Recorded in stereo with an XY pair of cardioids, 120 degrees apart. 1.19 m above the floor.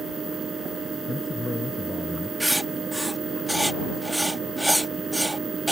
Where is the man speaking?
15° left.